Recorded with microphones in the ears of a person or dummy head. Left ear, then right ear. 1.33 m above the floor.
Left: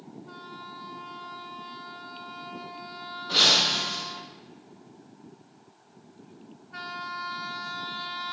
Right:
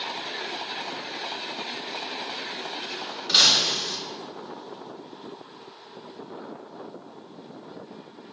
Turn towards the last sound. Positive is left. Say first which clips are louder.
# right 2 dB
turn(degrees=-70)  # may be behind; listen again after turning